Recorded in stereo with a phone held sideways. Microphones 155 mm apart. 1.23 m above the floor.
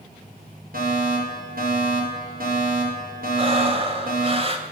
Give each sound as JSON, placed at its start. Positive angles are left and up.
{"t": 0.7, "sound": "a fire alarm", "side_deg": -70, "distance_m": 7.5}
{"t": 3.4, "sound": "breathing", "side_deg": -40, "distance_m": 3.0}